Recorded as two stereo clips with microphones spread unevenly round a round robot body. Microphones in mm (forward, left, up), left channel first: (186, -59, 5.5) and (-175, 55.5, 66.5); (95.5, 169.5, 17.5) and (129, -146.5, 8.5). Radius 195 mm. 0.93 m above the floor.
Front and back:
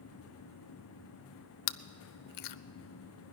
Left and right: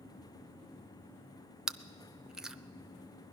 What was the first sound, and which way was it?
Chewing, 5° left.